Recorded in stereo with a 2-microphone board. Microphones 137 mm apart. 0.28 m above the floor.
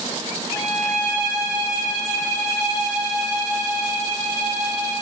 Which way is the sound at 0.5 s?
25° left (ahead or behind).